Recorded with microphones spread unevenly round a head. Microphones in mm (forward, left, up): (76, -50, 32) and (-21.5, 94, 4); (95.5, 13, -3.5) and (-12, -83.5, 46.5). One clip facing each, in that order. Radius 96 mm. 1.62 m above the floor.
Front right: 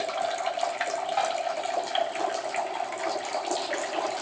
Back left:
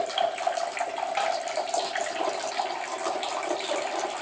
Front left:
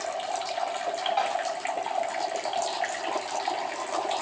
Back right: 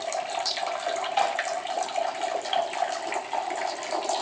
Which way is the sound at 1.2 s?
170° right.